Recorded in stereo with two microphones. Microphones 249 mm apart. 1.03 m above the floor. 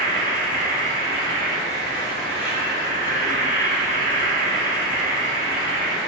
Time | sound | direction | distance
0.0 | an insect | 5° right (ahead or behind) | 1.2 m